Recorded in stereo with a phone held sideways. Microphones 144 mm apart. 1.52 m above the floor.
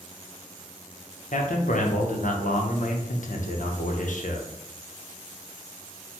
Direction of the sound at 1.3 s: 65° left (ahead or behind).